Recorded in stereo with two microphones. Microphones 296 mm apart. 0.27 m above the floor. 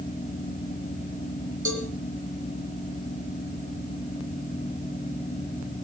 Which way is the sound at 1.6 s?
65° right (ahead or behind).